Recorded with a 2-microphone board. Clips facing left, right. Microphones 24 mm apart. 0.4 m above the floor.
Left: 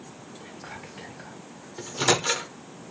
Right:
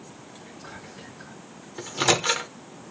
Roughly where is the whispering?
Left.